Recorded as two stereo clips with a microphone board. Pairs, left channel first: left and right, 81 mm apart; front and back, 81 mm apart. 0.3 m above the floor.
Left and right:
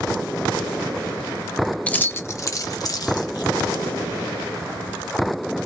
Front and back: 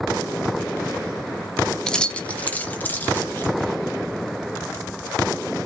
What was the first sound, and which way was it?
Keys jangling, 60° left.